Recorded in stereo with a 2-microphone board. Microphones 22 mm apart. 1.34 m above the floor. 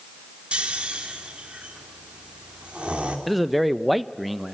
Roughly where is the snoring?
Right.